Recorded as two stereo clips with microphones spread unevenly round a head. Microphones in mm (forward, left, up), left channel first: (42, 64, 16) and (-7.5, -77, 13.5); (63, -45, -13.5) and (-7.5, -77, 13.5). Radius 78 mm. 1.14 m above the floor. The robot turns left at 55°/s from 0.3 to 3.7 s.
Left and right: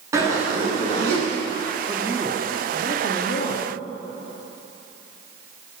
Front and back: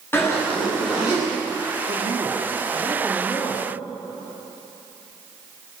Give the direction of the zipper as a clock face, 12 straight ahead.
1 o'clock.